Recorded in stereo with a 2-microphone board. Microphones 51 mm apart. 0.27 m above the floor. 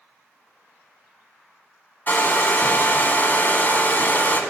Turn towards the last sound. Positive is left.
turn(degrees=35)  # may be behind; listen again after turning